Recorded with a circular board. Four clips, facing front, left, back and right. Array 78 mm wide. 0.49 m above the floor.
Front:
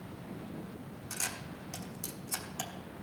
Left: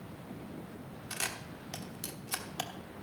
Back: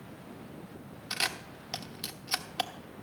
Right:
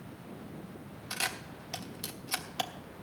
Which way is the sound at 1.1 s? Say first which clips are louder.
Right 4 dB, back 7 dB; 170° right.